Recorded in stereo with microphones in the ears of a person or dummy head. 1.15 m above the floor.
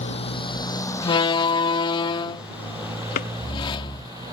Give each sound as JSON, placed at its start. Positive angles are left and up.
{"t": 0.0, "sound": "a motorcycle", "side_deg": 35}
{"t": 1.0, "sound": "a door slam", "side_deg": 25}
{"t": 3.1, "sound": "a drawer", "side_deg": 50}